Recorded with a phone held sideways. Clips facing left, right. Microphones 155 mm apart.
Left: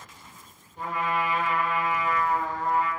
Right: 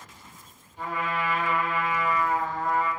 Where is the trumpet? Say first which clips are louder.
Left 2 dB; 45° left (ahead or behind), 1.4 m.